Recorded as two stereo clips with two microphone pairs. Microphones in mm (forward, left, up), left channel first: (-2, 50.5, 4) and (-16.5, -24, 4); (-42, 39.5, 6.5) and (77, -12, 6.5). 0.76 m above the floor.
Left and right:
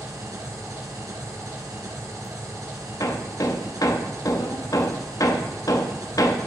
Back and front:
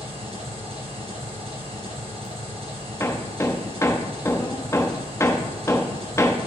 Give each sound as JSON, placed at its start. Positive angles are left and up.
{"t": 0.0, "sound": "an engine running", "azimuth_deg": -65, "distance_m": 3.0}
{"t": 3.0, "sound": "hammering", "azimuth_deg": 90, "distance_m": 0.8}